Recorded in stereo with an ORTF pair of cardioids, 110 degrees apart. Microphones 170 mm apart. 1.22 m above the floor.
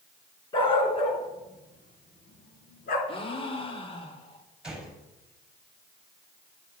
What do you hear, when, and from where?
0.5 s a dog barking: 30° left, 3.5 m; by 3.0 s 65° left, 3.5 m
3.1 s a gasp: 30° left, 2 m
4.6 s a gunshot: 5° right, 5.5 m